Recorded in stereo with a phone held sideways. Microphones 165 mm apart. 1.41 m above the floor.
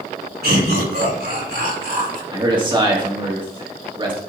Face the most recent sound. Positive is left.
turn(degrees=-30)  # may be behind; listen again after turning